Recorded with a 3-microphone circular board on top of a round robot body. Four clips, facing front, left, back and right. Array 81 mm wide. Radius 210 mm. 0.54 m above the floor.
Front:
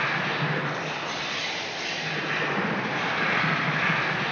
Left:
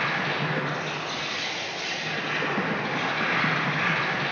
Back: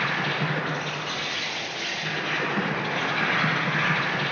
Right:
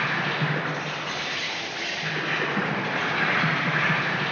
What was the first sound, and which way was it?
An insect, 90° right.